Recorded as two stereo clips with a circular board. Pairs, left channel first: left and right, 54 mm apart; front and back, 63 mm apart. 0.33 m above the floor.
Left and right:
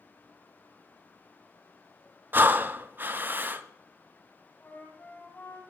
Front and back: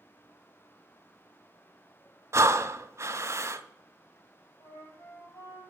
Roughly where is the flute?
Ahead left.